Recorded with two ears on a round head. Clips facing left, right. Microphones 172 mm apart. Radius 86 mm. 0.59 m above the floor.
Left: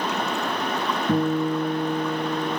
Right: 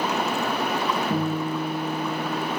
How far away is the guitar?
About 4 m.